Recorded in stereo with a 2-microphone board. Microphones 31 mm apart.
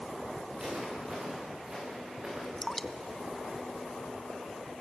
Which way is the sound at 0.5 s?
35° right (ahead or behind).